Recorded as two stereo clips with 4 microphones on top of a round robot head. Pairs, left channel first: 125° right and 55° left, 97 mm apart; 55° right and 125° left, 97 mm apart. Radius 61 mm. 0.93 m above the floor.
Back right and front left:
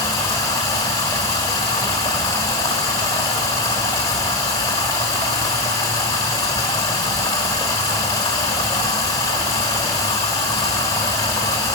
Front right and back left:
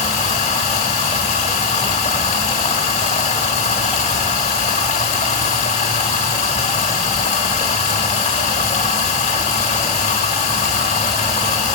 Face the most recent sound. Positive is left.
turn(degrees=-70)